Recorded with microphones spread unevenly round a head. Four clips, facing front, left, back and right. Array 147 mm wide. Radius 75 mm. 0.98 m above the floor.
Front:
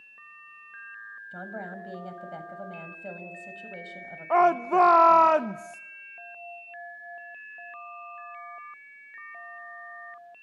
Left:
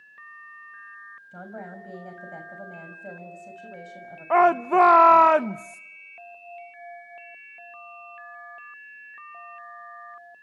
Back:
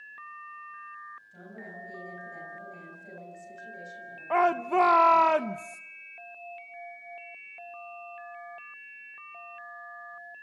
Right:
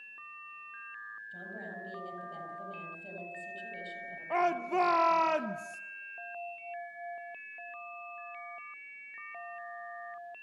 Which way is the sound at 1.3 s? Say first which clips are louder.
Left 7 dB, front 12 dB; 35° left.